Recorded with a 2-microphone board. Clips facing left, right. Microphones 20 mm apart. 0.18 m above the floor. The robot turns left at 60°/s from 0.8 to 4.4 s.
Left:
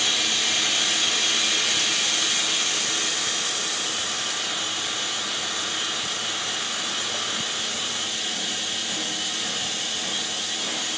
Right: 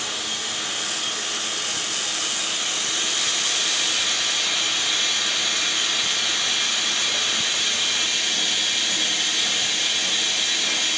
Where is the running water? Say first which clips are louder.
Left 5 dB; 135° left, 1.4 m; by 11.0 s 80° right, 1.4 m.